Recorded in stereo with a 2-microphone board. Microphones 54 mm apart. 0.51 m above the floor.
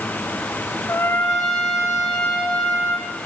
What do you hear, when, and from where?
0.9 s a trumpet: 75° left (ahead or behind), 6 m